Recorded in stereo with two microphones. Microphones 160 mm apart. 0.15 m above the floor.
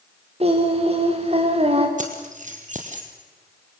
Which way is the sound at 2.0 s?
55° right (ahead or behind).